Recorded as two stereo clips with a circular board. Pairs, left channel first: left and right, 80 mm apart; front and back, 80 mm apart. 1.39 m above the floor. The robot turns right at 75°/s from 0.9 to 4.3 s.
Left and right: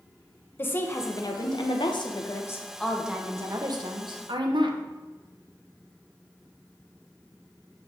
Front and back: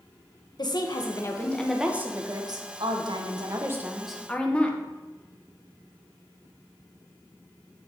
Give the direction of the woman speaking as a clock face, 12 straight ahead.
11 o'clock.